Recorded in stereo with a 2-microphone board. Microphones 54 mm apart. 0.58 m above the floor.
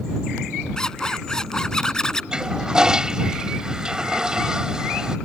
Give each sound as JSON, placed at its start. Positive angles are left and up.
{"t": 0.8, "sound": "a zipper", "side_deg": 10}
{"t": 2.3, "sound": "a toilet flushing", "side_deg": -10}